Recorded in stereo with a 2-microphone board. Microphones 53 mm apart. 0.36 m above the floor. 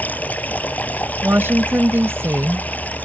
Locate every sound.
0.0 s running water: 30° left (ahead or behind)
1.2 s a woman speaking: 45° right (ahead or behind)